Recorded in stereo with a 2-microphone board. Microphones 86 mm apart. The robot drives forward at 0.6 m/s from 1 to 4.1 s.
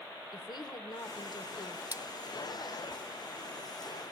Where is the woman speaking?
55° left (ahead or behind), 1.3 m; by 1.8 s 50° left (ahead or behind), 1.3 m.